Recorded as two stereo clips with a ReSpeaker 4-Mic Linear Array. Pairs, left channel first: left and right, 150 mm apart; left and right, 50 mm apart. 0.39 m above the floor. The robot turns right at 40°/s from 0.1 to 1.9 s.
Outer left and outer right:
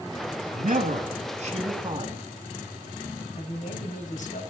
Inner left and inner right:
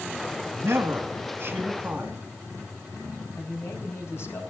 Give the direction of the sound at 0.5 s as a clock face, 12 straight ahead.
3 o'clock.